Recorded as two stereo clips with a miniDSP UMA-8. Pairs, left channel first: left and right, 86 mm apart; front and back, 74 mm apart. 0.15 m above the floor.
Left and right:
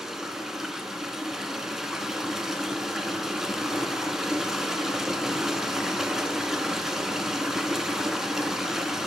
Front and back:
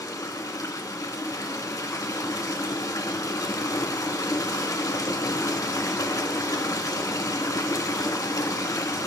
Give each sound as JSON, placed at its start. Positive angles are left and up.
{"t": 0.0, "sound": "running water", "azimuth_deg": -5, "distance_m": 0.8}